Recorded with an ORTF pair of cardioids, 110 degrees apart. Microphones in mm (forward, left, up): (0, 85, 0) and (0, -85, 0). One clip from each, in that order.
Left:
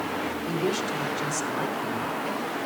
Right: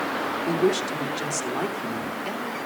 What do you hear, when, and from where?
0.5 s a woman speaking: 30° right, 2.5 m